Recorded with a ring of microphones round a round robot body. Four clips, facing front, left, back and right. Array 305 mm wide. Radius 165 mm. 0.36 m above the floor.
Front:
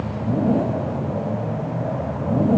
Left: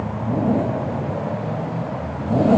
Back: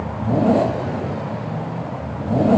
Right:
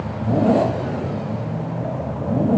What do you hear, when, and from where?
Only background noise.